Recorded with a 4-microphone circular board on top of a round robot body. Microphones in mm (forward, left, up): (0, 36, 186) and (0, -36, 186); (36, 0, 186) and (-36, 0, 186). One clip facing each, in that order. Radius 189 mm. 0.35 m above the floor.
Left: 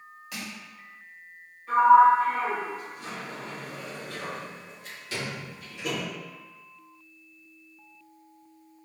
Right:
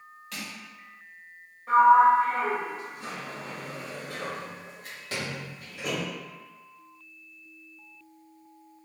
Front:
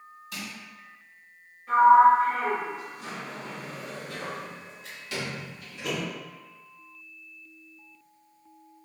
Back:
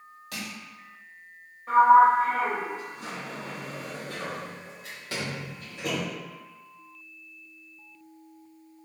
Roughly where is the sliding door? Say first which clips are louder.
Left 1 dB, even; behind right.